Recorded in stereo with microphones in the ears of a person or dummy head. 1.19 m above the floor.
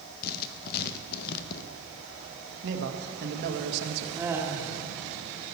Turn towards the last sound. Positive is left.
turn(degrees=-15)  # may be behind; listen again after turning